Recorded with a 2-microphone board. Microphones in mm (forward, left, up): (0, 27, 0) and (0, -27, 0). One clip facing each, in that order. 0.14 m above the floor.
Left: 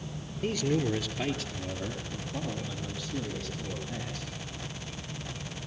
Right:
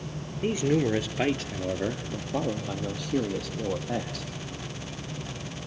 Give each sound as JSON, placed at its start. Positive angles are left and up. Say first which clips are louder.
{"t": 0.4, "sound": "a man speaking", "louder": "right 4 dB", "side_deg": -20, "distance_m": 1.9}